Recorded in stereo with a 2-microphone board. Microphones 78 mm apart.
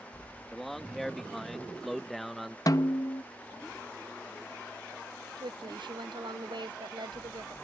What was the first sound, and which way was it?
A man speaking, 5° left (ahead or behind).